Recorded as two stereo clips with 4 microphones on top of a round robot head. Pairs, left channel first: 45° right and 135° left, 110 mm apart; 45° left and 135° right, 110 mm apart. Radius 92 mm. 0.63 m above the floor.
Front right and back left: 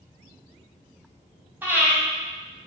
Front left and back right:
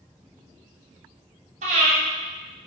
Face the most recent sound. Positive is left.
turn(degrees=-155)